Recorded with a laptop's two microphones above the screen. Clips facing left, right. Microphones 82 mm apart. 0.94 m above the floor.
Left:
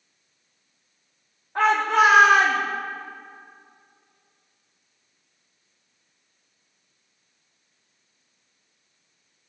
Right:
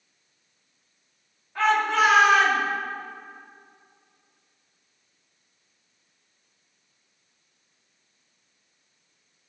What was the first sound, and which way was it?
A shout, 40° left (ahead or behind).